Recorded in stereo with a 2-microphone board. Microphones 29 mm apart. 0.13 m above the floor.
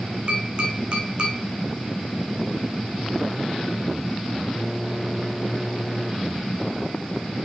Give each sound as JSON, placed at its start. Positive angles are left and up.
{"t": 0.3, "sound": "tapping", "side_deg": -40, "distance_m": 2.0}